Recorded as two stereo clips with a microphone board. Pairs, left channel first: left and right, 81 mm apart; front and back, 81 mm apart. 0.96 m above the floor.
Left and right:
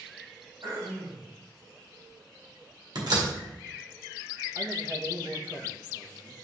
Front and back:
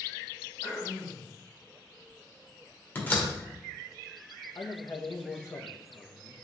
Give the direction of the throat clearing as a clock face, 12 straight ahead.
2 o'clock.